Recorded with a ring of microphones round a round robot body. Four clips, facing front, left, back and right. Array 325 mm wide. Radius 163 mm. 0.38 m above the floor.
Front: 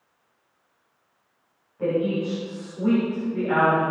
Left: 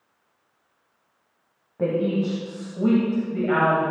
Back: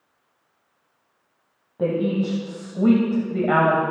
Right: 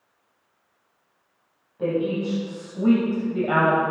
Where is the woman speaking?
135° left, 2.5 m; by 3.8 s 155° right, 2.5 m.